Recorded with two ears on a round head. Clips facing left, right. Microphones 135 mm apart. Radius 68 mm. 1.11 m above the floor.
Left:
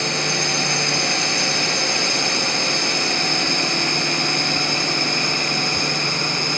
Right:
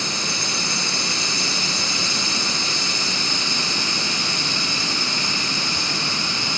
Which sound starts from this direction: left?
A drone, at 0.0 s.